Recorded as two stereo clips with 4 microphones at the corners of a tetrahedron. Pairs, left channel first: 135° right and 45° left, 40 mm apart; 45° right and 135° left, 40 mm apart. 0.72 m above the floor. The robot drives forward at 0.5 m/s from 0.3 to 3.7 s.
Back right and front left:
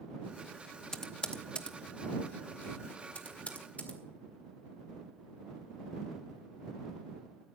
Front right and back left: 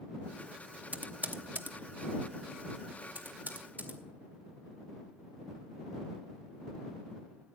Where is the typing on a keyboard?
155° left, 0.7 m; by 4.0 s 175° left, 2.0 m.